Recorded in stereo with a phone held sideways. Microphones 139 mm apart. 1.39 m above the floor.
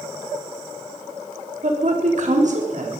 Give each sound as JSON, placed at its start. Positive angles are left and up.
{"t": 1.6, "sound": "a woman speaking", "side_deg": -60, "distance_m": 3.5}